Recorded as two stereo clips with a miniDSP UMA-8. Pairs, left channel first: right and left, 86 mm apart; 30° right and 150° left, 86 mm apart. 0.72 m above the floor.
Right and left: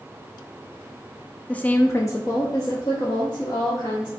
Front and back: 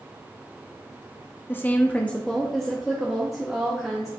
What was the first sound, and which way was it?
A woman speaking, 35° right.